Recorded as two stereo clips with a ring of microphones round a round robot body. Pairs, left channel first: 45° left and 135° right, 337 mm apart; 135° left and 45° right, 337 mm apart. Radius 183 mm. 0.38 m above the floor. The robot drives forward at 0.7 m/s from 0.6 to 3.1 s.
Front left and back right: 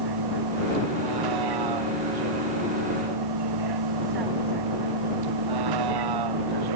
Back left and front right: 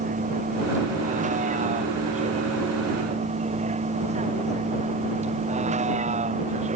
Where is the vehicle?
115° right.